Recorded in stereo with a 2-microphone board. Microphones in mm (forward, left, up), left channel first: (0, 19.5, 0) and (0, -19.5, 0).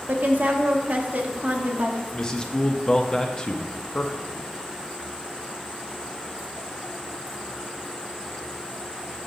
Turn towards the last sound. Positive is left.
turn(degrees=15)  # may be behind; listen again after turning